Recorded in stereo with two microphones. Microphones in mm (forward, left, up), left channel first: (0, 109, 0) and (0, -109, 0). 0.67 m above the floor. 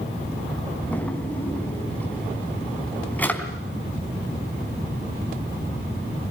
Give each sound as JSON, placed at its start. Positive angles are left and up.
{"t": 0.9, "sound": "a drawer", "side_deg": 5, "distance_m": 3.5}